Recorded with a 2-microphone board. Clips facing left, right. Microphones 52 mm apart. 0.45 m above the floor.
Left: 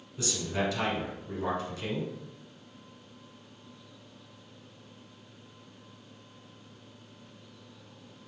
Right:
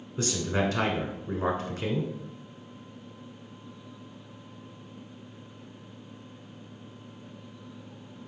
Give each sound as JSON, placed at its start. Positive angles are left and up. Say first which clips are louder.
{"t": 0.2, "sound": "a man speaking", "louder": "right 4 dB", "side_deg": -40, "distance_m": 1.1}